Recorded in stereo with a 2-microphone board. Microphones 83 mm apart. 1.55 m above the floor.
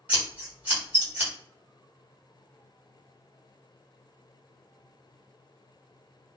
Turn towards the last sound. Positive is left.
turn(degrees=-20)  # may be behind; listen again after turning